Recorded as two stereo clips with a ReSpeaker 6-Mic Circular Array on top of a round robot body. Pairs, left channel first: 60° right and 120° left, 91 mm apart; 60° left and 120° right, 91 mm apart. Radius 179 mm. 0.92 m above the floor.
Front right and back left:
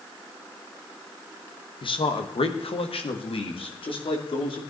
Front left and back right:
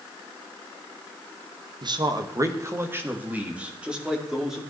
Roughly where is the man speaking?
Right.